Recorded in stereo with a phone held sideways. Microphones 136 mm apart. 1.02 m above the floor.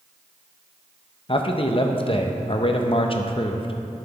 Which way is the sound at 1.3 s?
40° left (ahead or behind).